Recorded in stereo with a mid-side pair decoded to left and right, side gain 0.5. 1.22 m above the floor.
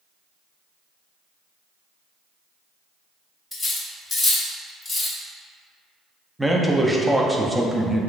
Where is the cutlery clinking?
25° left, 0.8 m.